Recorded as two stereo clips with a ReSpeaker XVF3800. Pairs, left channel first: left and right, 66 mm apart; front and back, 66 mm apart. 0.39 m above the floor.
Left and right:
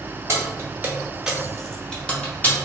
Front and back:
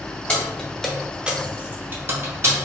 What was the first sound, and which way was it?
Keys jangling, 65° right.